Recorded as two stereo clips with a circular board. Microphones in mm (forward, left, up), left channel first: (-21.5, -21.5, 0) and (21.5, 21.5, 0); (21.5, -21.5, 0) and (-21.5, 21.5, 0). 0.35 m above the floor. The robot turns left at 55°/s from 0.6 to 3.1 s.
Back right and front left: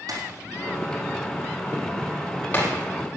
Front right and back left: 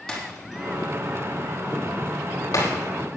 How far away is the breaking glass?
About 4.5 m.